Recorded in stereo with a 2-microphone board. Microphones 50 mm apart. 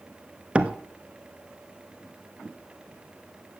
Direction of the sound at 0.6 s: 20° right (ahead or behind).